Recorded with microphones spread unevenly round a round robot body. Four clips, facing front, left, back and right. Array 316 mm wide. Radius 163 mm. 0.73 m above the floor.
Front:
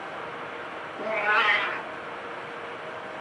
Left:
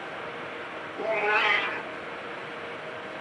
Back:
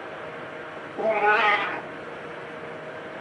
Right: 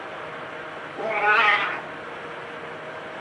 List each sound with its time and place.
1.0 s a cat meowing: 175° right, 0.6 m